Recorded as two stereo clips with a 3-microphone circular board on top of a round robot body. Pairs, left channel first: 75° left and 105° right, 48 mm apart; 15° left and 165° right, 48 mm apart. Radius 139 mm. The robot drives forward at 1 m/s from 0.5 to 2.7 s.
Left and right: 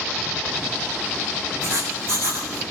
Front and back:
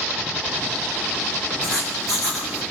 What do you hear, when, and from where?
1.6 s writing: 65° right, 7.5 m; by 2.6 s 75° right, 7.5 m